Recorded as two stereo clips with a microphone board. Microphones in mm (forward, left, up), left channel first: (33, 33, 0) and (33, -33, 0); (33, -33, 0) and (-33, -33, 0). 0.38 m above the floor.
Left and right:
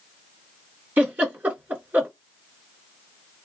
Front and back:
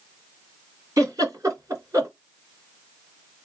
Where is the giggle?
150° right, 2.5 m.